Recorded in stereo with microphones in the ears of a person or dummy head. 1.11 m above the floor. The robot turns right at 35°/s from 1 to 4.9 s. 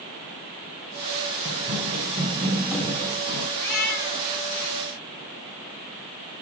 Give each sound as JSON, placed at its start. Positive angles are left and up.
{"t": 1.4, "sound": "running footsteps", "side_deg": -40, "distance_m": 1.6}
{"t": 3.6, "sound": "a cat meowing", "side_deg": 10, "distance_m": 3.0}